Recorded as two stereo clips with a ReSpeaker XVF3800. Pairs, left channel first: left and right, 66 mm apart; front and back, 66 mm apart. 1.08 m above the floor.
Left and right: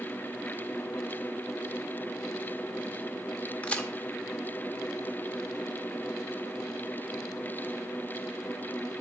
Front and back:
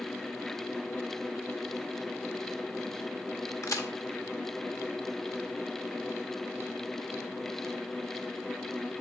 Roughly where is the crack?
Ahead.